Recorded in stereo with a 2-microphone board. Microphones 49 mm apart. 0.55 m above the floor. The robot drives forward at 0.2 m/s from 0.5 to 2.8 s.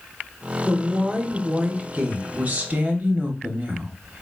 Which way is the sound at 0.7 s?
30° right (ahead or behind).